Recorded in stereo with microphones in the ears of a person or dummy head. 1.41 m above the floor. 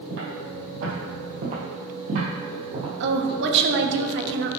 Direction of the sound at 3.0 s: 55° right (ahead or behind).